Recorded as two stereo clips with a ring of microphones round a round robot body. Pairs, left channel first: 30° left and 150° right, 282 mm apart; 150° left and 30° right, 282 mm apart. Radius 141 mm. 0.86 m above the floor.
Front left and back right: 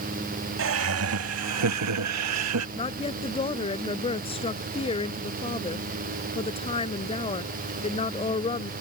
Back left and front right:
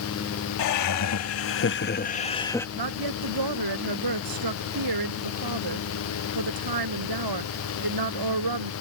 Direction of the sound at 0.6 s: 170° left.